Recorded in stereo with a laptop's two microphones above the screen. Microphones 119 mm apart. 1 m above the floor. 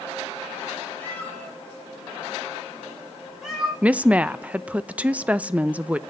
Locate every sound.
1.0 s a cat meowing: 15° left (ahead or behind), 5.5 m; by 3.7 s 5° right (ahead or behind), 6 m
3.8 s a woman speaking: 10° right (ahead or behind), 0.6 m